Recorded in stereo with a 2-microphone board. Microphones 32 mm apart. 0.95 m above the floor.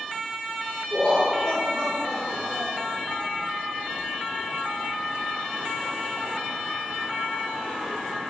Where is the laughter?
30° left (ahead or behind), 1.5 m; by 2.9 s 45° right (ahead or behind), 1.2 m.